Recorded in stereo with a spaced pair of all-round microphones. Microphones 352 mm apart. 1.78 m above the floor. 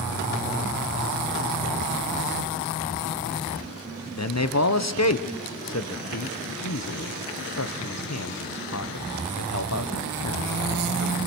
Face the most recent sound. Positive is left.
turn(degrees=50)  # may be behind; listen again after turning